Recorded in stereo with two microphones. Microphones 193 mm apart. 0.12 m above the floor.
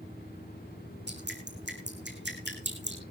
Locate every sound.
1.1 s dripping: 65° right (ahead or behind), 2.5 m